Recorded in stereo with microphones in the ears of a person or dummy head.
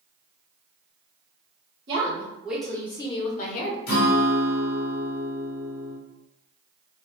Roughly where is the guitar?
Left.